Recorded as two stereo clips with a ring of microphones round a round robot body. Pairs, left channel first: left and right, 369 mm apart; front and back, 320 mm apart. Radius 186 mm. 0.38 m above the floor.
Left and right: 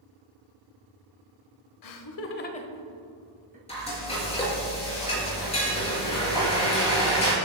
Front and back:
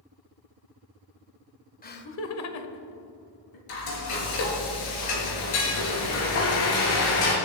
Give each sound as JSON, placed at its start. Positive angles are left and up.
{"t": 1.8, "sound": "laughter", "azimuth_deg": 60, "distance_m": 1.6}
{"t": 3.7, "sound": "frying", "azimuth_deg": 15, "distance_m": 5.0}